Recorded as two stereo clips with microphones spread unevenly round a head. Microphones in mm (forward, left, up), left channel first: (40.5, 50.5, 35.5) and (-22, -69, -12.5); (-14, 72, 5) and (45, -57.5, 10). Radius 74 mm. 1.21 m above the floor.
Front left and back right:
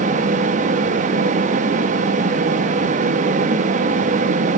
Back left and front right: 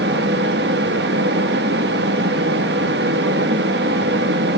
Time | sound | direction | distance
0.0 | a fan | 90° right | 1.8 m